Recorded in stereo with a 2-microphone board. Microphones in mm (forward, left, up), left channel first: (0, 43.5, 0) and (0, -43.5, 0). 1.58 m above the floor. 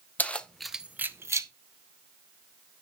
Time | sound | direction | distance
0.2 | keys jangling | 20° left (ahead or behind) | 0.7 m